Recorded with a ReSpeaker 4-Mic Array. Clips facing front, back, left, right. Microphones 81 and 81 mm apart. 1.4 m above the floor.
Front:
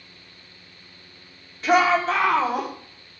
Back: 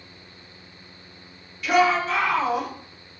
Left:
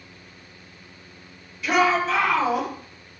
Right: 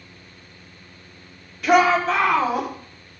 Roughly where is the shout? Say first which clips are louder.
Front 1 dB, right 4 dB; ahead right.